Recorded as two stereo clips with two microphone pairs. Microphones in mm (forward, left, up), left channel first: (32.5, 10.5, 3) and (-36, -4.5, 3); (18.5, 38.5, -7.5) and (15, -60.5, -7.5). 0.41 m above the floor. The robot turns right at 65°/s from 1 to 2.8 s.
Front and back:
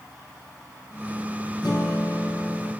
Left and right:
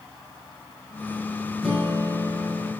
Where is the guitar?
Straight ahead, 4.5 m; by 2.7 s 70° left, 4.5 m.